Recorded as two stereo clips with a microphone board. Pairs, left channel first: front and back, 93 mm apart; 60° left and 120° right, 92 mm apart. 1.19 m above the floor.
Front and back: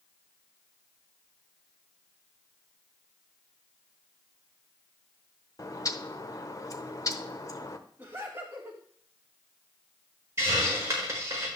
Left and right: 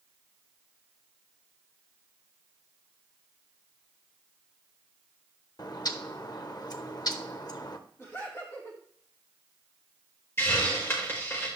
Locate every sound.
5.6 s a bird: 40° left, 0.9 m
8.0 s laughter: 120° left, 4 m
10.4 s a hiss: 120° left, 5 m